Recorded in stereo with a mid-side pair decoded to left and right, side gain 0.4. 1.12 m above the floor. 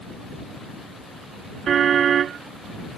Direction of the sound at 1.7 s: 60° right.